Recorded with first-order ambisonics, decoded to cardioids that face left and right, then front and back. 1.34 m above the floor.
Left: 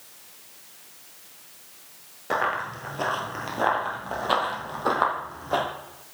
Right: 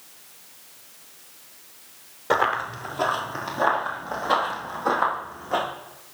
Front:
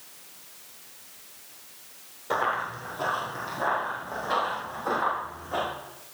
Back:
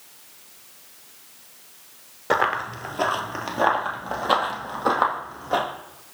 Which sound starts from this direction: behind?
Running footsteps, at 2.3 s.